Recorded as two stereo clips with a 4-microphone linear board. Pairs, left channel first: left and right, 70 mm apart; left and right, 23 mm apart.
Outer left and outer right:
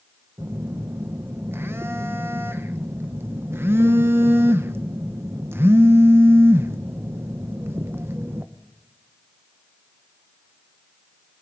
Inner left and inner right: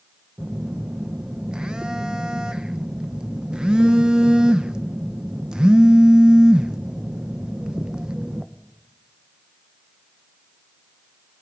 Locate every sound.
0.4 s a phone buzzing: 40° right (ahead or behind), 0.7 m